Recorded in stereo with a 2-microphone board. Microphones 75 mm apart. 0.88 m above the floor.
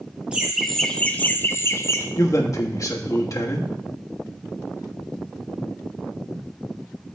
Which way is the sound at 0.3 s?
15° right (ahead or behind).